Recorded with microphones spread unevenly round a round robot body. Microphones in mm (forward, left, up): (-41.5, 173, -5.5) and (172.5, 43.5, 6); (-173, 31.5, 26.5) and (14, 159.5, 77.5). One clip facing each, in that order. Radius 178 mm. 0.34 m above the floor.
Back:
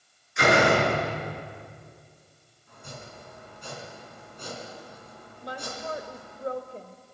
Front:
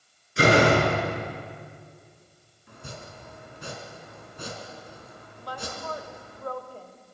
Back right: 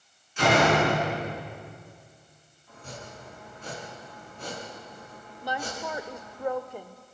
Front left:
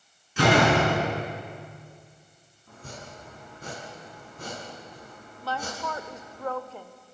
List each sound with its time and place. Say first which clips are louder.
0.4 s a door slam: front 2 dB, front left 1 dB; 25° left, 4 m
2.7 s chopping: front 1 dB, even; 25° right, 4.5 m
5.4 s a woman speaking: even, even; 170° right, 1.0 m